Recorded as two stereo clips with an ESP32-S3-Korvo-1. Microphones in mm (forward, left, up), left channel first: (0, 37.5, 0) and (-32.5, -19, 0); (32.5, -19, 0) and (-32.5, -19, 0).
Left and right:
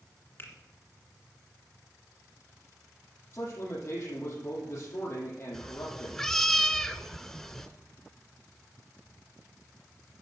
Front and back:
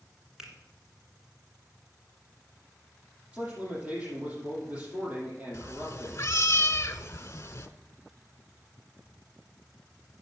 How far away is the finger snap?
About 1.9 m.